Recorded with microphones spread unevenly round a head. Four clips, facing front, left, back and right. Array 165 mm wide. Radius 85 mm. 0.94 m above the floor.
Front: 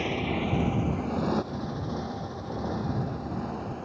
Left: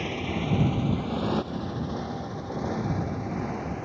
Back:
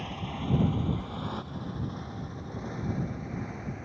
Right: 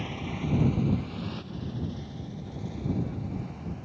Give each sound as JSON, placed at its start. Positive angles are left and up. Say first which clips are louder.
{"t": 0.0, "sound": "a motorcycle", "louder": "left 4 dB, front 7 dB", "azimuth_deg": 30}